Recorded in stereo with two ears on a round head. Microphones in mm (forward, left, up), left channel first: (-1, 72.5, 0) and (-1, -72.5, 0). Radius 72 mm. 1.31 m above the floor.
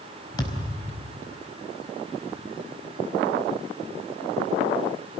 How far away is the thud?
About 4.5 m.